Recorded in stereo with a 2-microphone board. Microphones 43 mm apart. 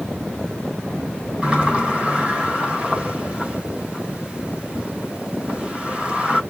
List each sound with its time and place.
1.4 s a sliding door: 25° right (ahead or behind), 2.5 m